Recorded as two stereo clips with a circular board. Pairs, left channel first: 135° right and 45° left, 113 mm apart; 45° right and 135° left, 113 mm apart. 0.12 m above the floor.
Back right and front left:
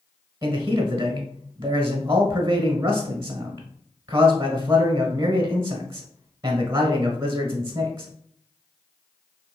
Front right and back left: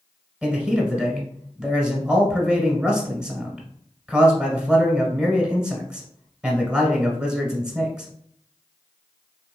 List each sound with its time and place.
0.4 s a man speaking: 65° left, 1.1 m